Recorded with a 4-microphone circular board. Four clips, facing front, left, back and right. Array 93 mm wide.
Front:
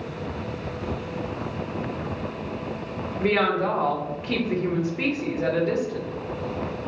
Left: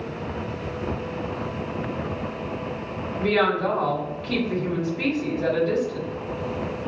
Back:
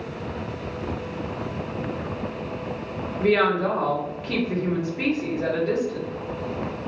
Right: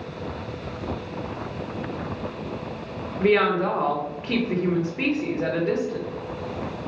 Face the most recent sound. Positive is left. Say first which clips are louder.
# right 2 dB, back 2 dB
turn(degrees=-70)